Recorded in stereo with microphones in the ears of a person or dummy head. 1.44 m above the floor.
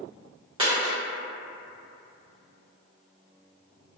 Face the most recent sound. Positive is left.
turn(degrees=-30)  # may be behind; listen again after turning